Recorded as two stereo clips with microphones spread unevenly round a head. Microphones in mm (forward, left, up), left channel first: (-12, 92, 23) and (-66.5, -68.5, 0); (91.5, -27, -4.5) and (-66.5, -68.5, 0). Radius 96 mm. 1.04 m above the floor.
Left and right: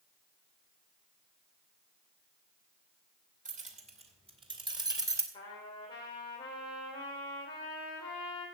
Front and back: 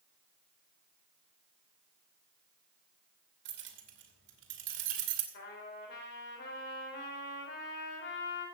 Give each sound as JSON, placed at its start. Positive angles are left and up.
{"t": 3.5, "sound": "keys jangling", "azimuth_deg": -155, "distance_m": 2.5}
{"t": 5.3, "sound": "a trumpet", "azimuth_deg": 5, "distance_m": 3.0}